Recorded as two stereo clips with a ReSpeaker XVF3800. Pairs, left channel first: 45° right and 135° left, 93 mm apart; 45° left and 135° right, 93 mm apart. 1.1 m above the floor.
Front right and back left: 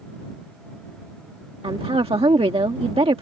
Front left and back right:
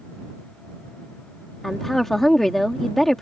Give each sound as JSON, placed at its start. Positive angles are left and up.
{"t": 1.6, "sound": "a woman speaking", "azimuth_deg": 130}